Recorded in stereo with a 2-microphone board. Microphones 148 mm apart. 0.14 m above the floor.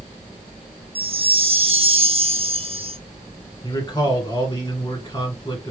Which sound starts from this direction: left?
A man speaking, at 3.6 s.